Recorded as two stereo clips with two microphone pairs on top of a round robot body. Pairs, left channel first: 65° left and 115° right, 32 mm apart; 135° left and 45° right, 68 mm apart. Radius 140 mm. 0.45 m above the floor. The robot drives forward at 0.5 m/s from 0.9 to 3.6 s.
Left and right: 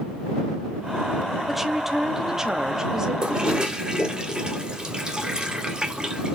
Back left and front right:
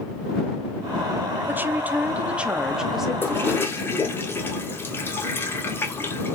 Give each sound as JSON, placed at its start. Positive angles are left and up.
{"t": 1.5, "sound": "a woman speaking", "azimuth_deg": -50, "distance_m": 1.5}
{"t": 3.2, "sound": "a toilet flushing", "azimuth_deg": -170, "distance_m": 2.5}